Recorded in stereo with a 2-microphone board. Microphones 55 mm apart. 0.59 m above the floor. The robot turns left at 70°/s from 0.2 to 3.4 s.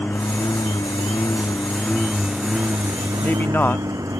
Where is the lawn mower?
140° left; by 4.2 s 80° right.